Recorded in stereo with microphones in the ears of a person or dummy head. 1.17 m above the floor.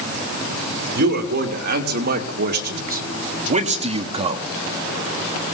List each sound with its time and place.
0.9 s a man speaking: 55° right (ahead or behind), 3 m; by 4.4 s 25° right (ahead or behind), 1.4 m